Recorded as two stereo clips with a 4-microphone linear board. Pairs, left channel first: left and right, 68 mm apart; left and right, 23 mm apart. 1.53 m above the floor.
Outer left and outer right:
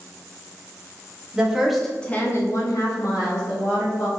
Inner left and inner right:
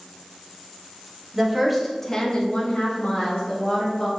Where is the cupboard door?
I don't hear a cupboard door.